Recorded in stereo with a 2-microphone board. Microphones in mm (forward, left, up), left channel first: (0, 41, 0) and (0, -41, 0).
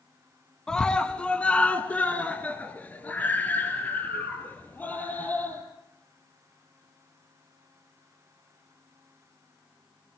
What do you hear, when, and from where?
0.7 s a scream: 10° left (ahead or behind), 1.6 m; by 5.6 s 20° left (ahead or behind), 6 m